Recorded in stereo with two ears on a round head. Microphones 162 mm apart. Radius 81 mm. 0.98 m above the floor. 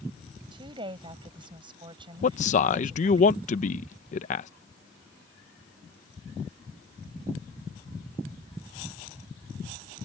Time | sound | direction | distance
0.5 | a woman speaking | 30° right (ahead or behind) | ?
2.2 | a man speaking | 40° left (ahead or behind) | ?